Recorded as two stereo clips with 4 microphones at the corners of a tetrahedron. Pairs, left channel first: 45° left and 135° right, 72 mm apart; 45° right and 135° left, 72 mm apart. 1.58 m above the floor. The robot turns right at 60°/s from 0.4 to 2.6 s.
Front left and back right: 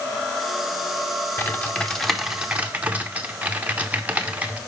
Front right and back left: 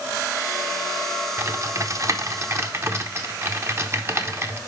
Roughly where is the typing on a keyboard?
Left.